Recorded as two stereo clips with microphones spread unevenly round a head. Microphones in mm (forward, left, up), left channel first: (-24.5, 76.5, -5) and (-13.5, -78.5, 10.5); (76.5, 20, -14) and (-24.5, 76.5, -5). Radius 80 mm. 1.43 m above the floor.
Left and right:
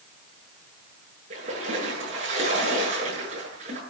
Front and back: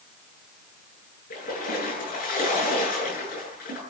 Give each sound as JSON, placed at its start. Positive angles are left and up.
{"t": 1.3, "sound": "a splash", "azimuth_deg": -35, "distance_m": 9.0}